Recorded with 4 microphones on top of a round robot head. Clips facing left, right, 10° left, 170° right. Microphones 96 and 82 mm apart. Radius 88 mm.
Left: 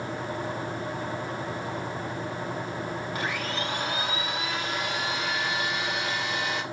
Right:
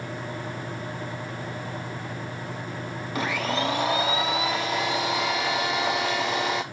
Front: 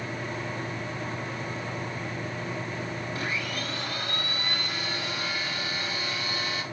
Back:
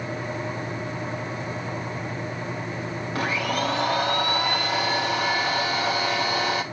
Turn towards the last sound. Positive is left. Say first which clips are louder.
# right 8 dB, back 10 dB
turn(degrees=-115)